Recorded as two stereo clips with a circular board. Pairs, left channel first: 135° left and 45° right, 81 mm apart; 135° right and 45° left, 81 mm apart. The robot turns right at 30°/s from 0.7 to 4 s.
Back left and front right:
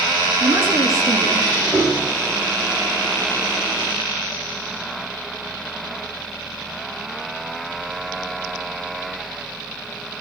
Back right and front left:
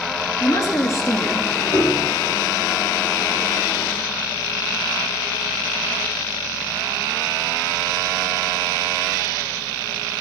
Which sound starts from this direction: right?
A woman speaking, at 0.4 s.